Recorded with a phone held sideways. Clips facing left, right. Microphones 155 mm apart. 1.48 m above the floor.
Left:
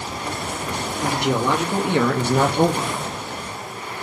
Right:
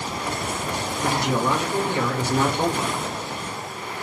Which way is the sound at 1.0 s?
70° left (ahead or behind).